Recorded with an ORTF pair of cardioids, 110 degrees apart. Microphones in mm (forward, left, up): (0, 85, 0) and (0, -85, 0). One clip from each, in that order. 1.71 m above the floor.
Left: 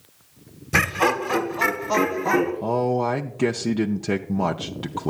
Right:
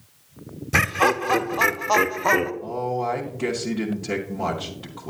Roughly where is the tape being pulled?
No tape being pulled in this recording.